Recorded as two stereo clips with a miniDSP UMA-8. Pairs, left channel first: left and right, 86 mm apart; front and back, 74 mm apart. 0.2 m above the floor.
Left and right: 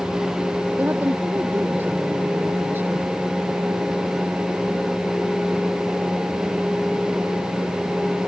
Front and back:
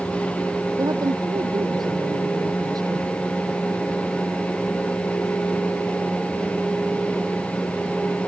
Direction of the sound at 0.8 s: 155° right.